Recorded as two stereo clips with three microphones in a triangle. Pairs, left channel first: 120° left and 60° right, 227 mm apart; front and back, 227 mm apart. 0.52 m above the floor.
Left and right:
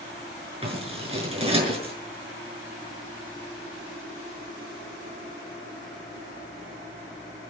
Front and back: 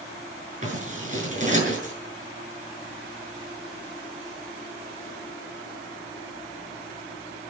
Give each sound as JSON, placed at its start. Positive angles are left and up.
{"t": 0.6, "sound": "scissors", "azimuth_deg": -125, "distance_m": 6.5}